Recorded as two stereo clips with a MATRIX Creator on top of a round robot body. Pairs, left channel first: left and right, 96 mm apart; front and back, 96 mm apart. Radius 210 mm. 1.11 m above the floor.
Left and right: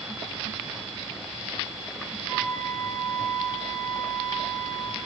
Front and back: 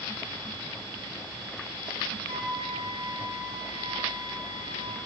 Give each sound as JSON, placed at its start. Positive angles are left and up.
{"t": 2.3, "sound": "a flute", "azimuth_deg": 145, "distance_m": 1.2}